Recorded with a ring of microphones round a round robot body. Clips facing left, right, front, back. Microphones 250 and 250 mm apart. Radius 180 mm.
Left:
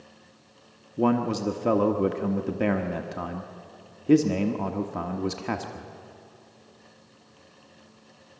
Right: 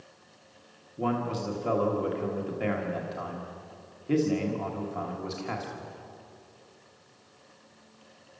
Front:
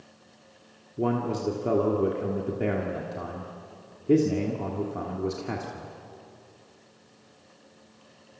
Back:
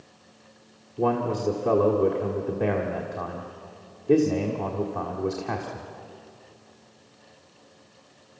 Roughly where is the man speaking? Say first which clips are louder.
Left 7 dB, back 2 dB; left.